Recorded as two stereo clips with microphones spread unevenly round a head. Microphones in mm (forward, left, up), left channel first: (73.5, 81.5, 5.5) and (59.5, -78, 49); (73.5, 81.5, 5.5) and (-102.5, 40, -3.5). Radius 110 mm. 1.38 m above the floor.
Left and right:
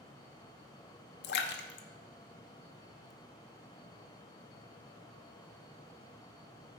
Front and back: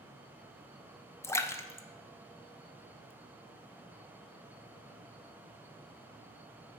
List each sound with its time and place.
1.2 s a splash: 90° left, 0.7 m